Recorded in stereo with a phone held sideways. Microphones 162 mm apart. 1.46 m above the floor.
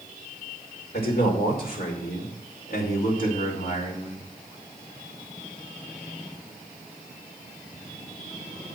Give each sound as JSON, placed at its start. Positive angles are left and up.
{"t": 0.9, "sound": "a man speaking", "side_deg": 90, "distance_m": 5.0}